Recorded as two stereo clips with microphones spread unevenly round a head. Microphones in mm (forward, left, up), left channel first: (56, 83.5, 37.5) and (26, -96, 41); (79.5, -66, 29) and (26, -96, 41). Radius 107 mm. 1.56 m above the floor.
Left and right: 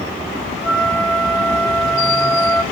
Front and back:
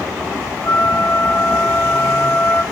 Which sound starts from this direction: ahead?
A flute, at 0.6 s.